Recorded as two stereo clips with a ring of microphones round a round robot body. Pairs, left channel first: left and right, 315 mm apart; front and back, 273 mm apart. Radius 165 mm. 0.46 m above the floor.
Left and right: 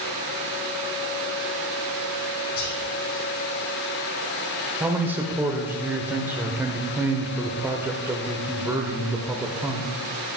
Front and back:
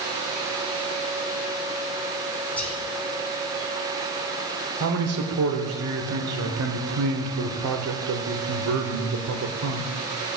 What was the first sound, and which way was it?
Whispering, 85° left.